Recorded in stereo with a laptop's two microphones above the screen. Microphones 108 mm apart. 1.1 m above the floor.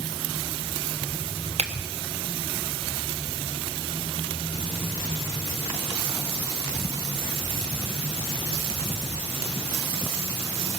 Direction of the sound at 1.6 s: 85° right.